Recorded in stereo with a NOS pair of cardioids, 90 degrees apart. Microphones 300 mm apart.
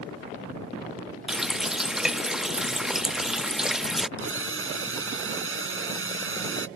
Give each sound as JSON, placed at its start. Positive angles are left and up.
{"t": 1.3, "sound": "a running tap", "azimuth_deg": 0}
{"t": 4.2, "sound": "a drill", "azimuth_deg": -45}